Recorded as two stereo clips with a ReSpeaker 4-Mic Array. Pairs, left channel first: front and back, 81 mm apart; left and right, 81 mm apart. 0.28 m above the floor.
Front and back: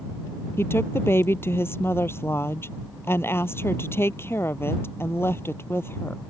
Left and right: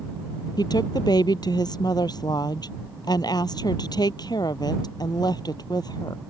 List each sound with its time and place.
0.6 s a woman speaking: 60° left